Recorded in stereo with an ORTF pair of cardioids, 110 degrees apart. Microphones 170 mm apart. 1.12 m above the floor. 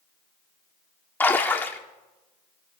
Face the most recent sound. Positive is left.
turn(degrees=10)